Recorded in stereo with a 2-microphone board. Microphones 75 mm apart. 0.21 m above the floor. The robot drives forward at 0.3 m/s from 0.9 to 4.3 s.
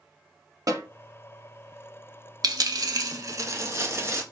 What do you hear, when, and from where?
0.7 s a snare drum: 50° right (ahead or behind), 1.0 m
2.4 s a dropped coin: 65° right (ahead or behind), 0.6 m; by 4.2 s 35° right (ahead or behind), 0.9 m